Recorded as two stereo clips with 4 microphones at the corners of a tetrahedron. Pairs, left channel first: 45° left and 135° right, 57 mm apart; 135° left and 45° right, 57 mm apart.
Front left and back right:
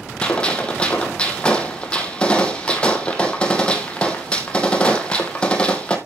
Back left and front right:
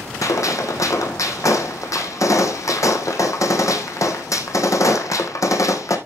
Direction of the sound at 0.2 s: 115° left.